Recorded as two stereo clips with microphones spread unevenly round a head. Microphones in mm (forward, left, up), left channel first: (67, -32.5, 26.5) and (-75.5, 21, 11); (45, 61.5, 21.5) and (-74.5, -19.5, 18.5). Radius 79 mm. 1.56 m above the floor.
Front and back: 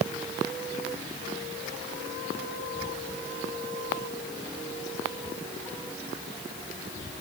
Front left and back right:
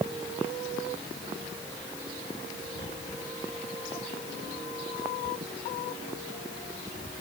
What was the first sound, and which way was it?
Only background noise.